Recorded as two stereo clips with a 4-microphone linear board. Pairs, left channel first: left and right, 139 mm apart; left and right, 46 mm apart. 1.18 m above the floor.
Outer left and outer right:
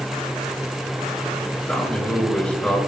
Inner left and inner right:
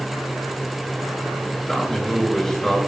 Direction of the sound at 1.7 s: 5° left (ahead or behind).